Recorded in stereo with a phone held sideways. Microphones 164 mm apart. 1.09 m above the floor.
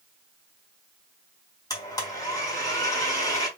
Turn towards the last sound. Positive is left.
turn(degrees=25)  # may be behind; listen again after turning